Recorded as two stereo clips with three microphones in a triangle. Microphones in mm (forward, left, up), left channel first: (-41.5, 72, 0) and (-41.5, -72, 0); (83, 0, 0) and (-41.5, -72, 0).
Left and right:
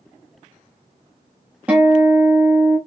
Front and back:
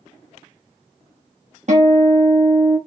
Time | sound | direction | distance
1.7 | a guitar | 170° right | 1.3 m